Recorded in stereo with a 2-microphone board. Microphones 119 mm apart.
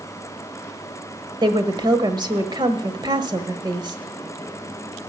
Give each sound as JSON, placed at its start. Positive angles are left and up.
{"t": 1.4, "sound": "a woman speaking", "side_deg": -40, "distance_m": 1.3}